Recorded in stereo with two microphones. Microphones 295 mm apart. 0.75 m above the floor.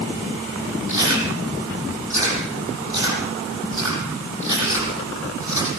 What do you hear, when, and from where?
0.9 s chewing: 70° left (ahead or behind), 8 m